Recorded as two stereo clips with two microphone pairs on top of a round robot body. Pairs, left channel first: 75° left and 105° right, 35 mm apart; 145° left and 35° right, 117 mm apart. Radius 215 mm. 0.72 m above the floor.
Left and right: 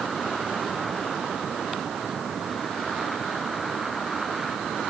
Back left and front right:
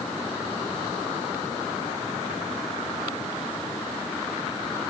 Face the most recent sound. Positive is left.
No sound to turn to.